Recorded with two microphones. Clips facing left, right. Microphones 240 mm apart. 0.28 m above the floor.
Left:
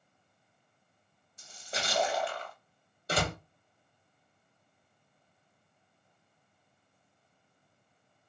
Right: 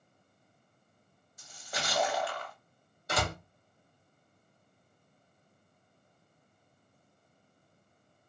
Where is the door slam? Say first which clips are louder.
Left 2 dB; 30° left (ahead or behind), 0.9 m.